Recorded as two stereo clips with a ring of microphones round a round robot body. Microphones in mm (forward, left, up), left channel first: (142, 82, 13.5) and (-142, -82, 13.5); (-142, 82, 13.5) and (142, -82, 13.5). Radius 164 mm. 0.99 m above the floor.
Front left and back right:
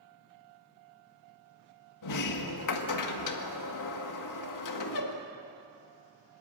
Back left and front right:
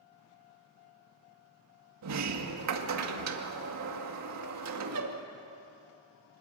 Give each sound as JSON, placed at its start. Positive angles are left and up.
{"t": 2.0, "sound": "a sliding door", "azimuth_deg": 5, "distance_m": 1.9}